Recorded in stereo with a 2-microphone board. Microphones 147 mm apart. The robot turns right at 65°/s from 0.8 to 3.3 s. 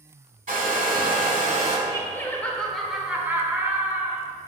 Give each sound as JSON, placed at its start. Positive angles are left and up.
{"t": 0.5, "sound": "a hair dryer", "azimuth_deg": -105, "distance_m": 1.0}
{"t": 1.9, "sound": "laughter", "side_deg": 20, "distance_m": 0.8}